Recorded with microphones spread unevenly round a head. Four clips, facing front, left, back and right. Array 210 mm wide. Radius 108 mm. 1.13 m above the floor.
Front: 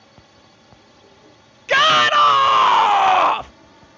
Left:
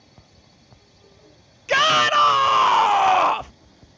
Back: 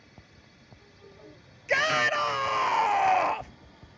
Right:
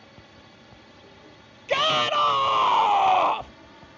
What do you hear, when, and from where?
0.0 s a drone: 60° right; by 4.0 s 50° right
1.7 s a shout: 20° left